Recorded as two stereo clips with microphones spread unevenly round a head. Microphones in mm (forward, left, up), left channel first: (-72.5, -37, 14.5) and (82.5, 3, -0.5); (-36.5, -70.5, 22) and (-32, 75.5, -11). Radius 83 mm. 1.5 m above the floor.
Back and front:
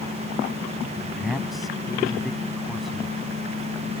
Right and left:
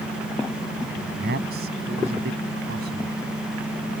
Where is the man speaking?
105° left.